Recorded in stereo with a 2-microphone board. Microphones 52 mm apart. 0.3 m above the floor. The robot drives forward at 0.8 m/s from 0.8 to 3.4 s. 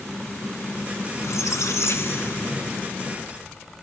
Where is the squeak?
75° left (ahead or behind), 0.8 m; by 2.9 s 35° left (ahead or behind), 1.4 m.